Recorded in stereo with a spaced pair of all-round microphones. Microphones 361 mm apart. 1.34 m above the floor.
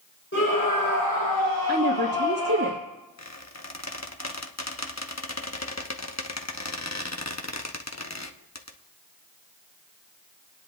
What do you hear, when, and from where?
0.3 s a scream: 35° left (ahead or behind), 4.5 m; by 2.7 s 15° left (ahead or behind), 6.5 m
1.7 s a woman speaking: 60° right (ahead or behind), 1.5 m
3.2 s a squeak: 45° left (ahead or behind), 0.9 m